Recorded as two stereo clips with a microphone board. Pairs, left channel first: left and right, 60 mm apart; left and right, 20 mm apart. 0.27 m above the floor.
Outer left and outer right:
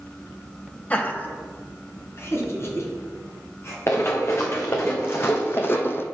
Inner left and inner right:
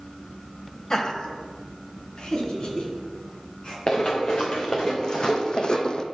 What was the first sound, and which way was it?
Laughter, 25° left (ahead or behind).